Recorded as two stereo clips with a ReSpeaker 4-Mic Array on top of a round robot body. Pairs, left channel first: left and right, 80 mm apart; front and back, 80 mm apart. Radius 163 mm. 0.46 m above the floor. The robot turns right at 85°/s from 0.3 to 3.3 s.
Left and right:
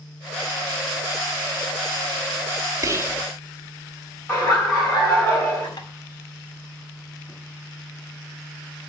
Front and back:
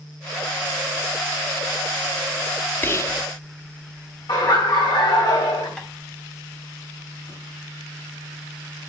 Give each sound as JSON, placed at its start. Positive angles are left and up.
{"t": 2.8, "sound": "whispering", "azimuth_deg": -55, "distance_m": 1.1}
{"t": 4.3, "sound": "laughter", "azimuth_deg": 25, "distance_m": 3.5}
{"t": 5.8, "sound": "tapping", "azimuth_deg": 75, "distance_m": 2.5}